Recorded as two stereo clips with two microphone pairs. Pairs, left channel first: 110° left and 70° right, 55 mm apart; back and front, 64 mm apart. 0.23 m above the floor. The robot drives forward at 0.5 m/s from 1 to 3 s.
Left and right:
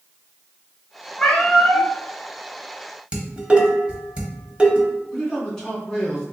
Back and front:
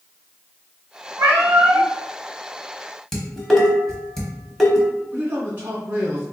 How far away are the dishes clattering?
About 0.8 m.